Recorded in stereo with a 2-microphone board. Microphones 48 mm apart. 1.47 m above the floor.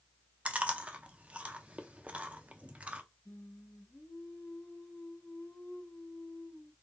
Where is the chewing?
25° right (ahead or behind), 0.6 m.